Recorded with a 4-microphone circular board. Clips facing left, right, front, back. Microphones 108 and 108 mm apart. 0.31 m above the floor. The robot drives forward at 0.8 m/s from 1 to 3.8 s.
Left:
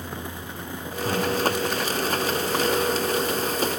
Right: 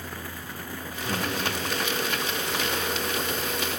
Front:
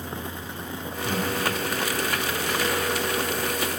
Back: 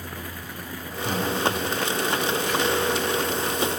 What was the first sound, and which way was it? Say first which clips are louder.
Breathing: left 5 dB, back 1 dB; 105° left.